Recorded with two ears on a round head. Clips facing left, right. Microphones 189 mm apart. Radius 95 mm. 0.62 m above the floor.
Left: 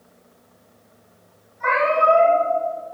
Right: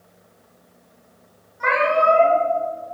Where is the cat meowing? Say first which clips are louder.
Right 1 dB; 65° right (ahead or behind), 3.5 m.